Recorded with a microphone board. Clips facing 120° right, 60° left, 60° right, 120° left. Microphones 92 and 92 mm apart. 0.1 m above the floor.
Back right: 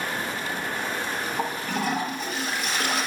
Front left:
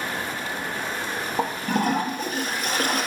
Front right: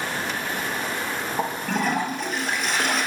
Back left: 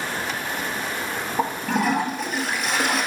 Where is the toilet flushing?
35° left, 1.5 m.